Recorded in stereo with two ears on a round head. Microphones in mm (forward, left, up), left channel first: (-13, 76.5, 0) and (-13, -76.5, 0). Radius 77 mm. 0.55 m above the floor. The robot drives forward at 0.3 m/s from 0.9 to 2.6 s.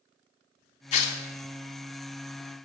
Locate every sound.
0.9 s tearing paper: 40° left (ahead or behind), 0.6 m; by 1.2 s 35° left (ahead or behind), 0.7 m